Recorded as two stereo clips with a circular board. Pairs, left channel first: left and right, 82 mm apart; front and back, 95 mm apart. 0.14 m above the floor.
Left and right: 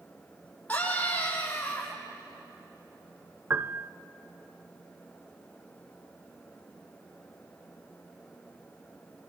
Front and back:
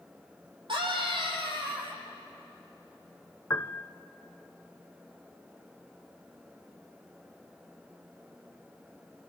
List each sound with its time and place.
0.7 s a scream: 160° left, 5.5 m
3.5 s a piano: 45° right, 0.6 m